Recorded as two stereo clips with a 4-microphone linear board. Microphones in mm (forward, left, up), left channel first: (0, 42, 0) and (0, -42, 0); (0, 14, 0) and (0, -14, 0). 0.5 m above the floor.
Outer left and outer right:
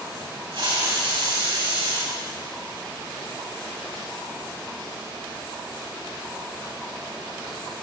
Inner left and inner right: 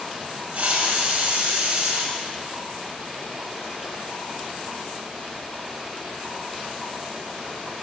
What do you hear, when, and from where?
0.5 s a hiss: 70° right (ahead or behind), 2.5 m